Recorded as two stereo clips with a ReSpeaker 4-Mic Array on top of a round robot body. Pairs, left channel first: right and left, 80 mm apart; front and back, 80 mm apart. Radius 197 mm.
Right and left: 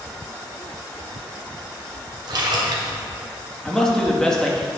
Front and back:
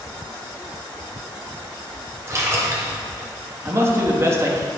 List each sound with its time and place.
2.3 s a splash: 125° left, 1.1 m
3.6 s a man speaking: 165° right, 1.4 m